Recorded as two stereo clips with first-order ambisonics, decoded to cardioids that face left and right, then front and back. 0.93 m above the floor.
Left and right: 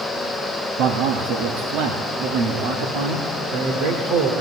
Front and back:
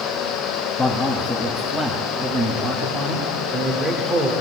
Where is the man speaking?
80° right, 1.3 m; by 4.3 s 110° right, 3 m.